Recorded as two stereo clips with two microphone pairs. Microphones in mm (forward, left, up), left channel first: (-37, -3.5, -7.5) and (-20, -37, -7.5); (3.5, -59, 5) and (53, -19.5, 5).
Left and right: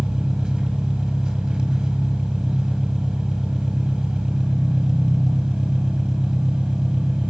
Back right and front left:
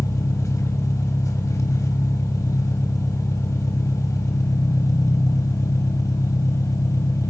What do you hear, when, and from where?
0.0 s an engine running: 130° right, 1.4 m